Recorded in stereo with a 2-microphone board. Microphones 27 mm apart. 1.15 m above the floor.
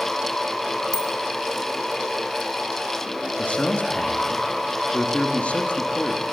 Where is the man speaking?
65° left (ahead or behind), 2.5 m.